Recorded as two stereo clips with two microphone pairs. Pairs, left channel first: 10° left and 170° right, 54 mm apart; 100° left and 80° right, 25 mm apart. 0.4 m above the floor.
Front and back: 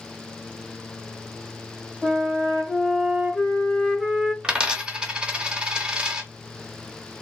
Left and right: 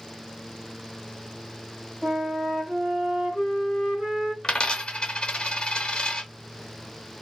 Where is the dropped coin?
130° left, 0.6 m.